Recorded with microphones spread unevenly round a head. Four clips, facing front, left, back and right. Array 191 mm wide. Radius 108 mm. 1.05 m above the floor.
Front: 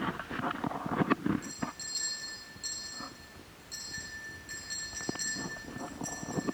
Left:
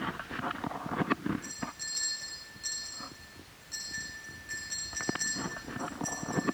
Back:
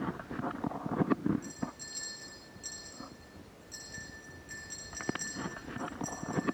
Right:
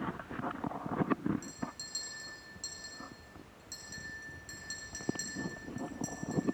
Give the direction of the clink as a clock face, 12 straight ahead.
4 o'clock.